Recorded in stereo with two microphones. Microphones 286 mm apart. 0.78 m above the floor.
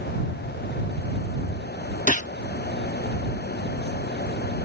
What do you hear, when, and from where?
2.1 s a gunshot: 25° left (ahead or behind)